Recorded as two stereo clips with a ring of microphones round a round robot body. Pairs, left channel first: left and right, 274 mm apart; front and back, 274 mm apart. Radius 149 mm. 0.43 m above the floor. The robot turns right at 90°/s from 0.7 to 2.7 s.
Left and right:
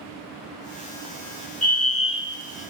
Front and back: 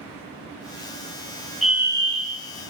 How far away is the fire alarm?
About 2 m.